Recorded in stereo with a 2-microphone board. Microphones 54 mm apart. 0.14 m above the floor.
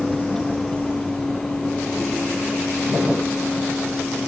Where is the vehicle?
5° left (ahead or behind); by 4.3 s 20° left (ahead or behind).